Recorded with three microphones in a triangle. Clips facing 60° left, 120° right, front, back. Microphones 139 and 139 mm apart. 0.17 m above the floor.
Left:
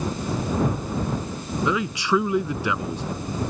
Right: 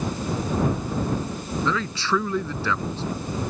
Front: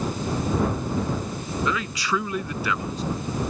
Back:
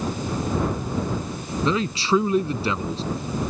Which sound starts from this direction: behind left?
A man speaking, at 1.6 s.